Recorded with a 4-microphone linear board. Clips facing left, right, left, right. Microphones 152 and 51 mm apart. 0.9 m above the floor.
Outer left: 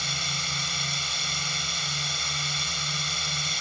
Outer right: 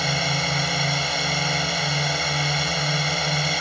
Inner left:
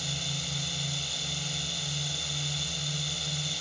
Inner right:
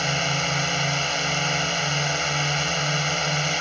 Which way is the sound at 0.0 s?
70° right (ahead or behind).